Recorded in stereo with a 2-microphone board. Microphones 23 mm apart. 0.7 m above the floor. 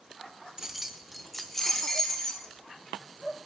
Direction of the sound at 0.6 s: 25° right (ahead or behind).